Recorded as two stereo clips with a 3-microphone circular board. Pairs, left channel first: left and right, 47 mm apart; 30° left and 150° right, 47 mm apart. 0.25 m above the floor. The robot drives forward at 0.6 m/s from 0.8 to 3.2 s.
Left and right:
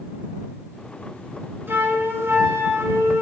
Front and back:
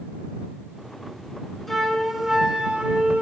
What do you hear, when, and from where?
1.7 s a flute: 55° right, 1.3 m; by 3.2 s 100° right, 1.1 m